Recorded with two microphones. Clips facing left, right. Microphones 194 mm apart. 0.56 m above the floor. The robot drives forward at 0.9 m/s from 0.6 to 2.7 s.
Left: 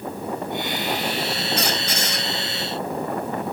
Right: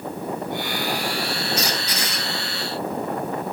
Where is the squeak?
55° left (ahead or behind), 0.8 m; by 2.3 s 40° left (ahead or behind), 1.1 m.